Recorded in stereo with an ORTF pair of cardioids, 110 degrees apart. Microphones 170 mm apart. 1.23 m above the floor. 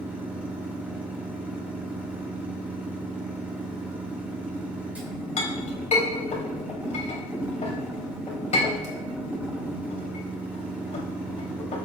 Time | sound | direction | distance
0.0 | a machine running | 10° right | 3 m
5.4 | a clink | 45° left | 3.5 m